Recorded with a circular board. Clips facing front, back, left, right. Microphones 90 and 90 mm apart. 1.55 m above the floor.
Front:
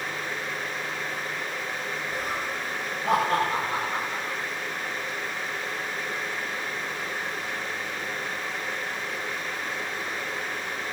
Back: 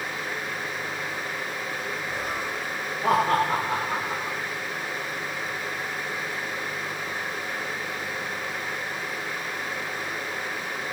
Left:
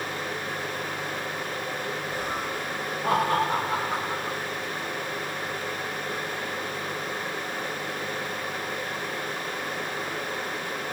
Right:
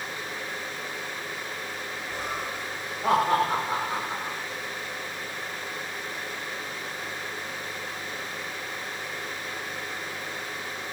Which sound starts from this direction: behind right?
Laughter, at 2.1 s.